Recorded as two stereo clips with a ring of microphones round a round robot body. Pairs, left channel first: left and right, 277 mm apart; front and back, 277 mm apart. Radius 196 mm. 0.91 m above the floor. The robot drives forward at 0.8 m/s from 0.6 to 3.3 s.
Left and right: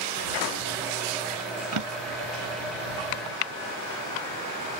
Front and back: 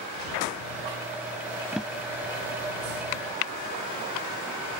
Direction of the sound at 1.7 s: 90° right.